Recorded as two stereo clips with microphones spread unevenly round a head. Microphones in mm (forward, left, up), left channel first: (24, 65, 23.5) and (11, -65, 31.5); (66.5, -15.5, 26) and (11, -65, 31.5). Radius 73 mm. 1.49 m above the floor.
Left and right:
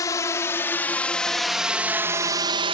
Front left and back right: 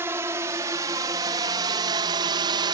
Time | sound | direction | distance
0.0 | a drone | 150° left | ?